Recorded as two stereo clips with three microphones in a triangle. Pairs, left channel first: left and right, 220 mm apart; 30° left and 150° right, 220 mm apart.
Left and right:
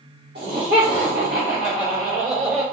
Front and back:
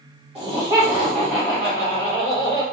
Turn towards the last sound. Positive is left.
turn(degrees=-35)